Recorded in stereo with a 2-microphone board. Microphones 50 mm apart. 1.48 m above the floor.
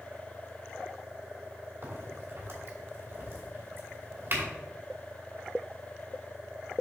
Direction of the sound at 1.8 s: 55° right (ahead or behind).